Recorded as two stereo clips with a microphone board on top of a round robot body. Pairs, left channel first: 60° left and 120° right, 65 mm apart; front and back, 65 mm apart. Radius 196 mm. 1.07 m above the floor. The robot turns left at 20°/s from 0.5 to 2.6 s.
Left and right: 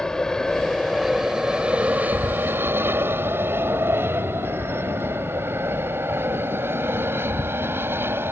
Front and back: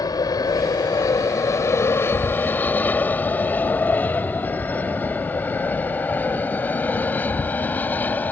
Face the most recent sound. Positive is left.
turn(degrees=-65)